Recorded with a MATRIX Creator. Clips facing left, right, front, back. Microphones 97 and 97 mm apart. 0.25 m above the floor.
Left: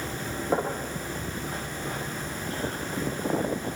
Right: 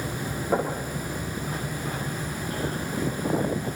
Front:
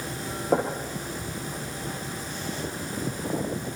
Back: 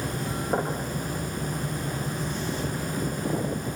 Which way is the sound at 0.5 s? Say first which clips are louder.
Right 1 dB, front 4 dB; 10° left.